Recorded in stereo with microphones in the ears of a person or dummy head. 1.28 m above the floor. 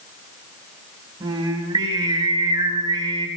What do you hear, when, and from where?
1.2 s singing: 20° right (ahead or behind), 5 m